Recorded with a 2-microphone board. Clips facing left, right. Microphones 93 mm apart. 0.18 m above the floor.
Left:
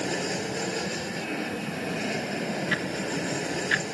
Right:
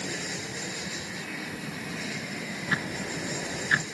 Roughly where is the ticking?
Right.